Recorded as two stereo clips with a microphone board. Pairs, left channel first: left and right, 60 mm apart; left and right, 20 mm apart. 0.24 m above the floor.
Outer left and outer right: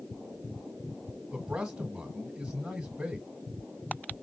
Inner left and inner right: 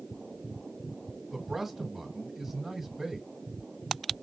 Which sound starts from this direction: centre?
A man speaking, at 1.3 s.